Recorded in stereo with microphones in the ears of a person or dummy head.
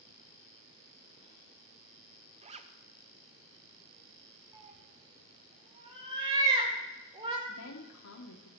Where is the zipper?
30° right (ahead or behind), 0.6 m.